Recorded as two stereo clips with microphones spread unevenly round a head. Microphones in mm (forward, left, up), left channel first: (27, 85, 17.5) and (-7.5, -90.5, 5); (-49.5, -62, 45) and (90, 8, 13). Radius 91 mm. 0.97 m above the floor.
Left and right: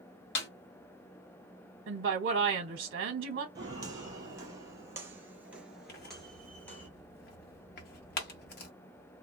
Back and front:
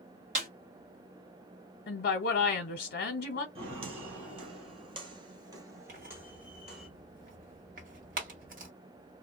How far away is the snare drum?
About 1.2 m.